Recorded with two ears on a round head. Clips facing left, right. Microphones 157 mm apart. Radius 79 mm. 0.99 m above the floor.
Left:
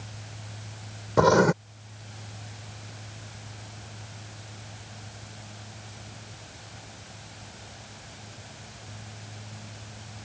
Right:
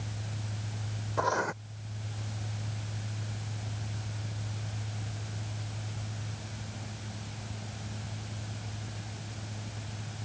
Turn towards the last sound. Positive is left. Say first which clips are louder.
# left 12 dB
turn(degrees=75)  # may be behind; listen again after turning